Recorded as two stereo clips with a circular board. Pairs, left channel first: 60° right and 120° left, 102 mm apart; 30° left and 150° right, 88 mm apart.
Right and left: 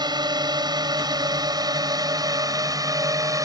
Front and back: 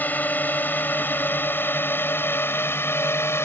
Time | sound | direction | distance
0.0 | a drone | 95° left | ?